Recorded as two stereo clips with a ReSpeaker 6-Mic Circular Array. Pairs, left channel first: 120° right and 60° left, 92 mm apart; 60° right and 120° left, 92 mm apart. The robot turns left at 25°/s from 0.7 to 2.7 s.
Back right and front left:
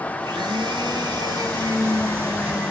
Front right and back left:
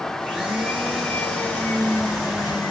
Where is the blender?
35° left, 5 m; by 2.7 s 15° right, 5 m.